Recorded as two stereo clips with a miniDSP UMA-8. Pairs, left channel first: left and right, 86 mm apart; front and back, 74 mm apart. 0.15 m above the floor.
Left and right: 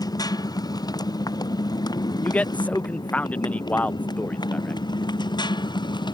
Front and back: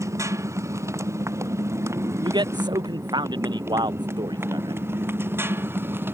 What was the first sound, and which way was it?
A motorcycle, 130° left.